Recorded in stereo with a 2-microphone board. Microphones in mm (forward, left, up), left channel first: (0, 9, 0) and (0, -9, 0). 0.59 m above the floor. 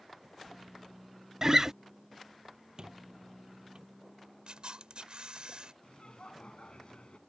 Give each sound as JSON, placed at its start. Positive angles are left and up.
{"t": 1.4, "sound": "a guitar", "side_deg": -30}
{"t": 2.8, "sound": "a squeak", "side_deg": -50}
{"t": 4.5, "sound": "a camera shutter", "side_deg": -65}
{"t": 5.8, "sound": "laughter", "side_deg": 80}